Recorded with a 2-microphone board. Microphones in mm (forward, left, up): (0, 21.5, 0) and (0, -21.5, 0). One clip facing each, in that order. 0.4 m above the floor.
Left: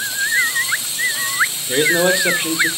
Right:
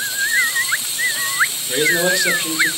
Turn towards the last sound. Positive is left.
turn(degrees=20)  # may be behind; listen again after turning